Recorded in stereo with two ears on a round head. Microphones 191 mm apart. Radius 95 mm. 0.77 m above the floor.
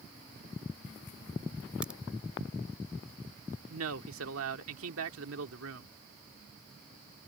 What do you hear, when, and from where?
1.8 s a crack: 5° right (ahead or behind)
3.7 s a man speaking: 70° right (ahead or behind)